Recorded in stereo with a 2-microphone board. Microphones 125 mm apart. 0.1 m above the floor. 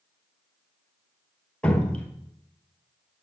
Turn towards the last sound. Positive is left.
turn(degrees=10)  # may be behind; listen again after turning